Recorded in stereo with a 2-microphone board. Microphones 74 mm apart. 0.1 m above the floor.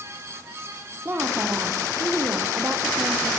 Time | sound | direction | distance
1.1 | a woman speaking | 35° right (ahead or behind) | 5 m